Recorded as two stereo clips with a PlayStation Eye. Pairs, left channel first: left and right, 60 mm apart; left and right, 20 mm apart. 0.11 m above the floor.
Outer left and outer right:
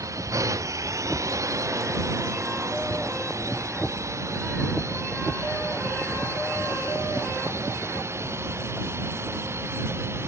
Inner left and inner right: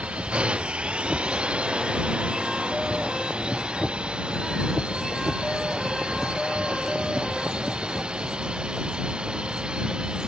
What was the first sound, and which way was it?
A drone, 60° right (ahead or behind).